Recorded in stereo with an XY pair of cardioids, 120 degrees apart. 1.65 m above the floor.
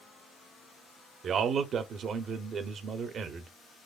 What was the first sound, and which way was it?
A man speaking, 45° right.